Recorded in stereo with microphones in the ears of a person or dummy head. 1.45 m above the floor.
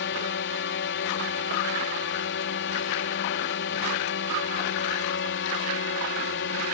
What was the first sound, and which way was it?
A drone, 50° left (ahead or behind).